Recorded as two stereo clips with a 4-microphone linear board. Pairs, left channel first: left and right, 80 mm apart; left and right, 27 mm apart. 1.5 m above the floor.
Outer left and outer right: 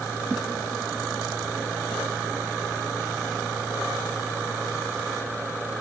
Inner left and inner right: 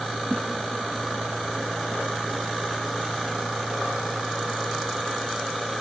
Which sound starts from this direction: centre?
A whoosh, at 0.3 s.